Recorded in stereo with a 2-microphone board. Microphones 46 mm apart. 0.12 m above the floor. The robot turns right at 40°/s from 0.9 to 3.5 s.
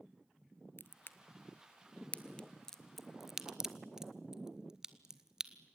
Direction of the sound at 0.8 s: 55° left (ahead or behind).